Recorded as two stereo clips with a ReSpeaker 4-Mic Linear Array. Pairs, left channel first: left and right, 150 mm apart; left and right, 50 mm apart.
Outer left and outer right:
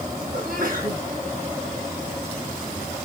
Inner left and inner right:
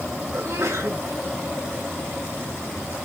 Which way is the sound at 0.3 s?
70° right (ahead or behind).